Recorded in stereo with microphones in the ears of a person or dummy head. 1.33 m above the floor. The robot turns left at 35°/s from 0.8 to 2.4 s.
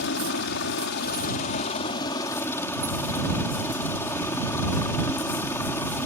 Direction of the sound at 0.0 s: 65° left.